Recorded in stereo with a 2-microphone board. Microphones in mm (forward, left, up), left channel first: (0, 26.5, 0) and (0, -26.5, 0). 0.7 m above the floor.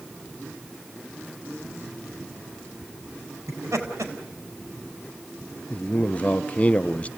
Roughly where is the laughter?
Right.